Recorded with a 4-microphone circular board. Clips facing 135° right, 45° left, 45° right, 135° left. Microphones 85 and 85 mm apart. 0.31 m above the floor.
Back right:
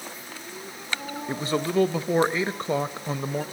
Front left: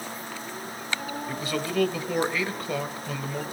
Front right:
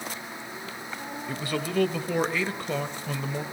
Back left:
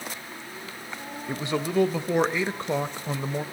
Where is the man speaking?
170° right, 1.0 m.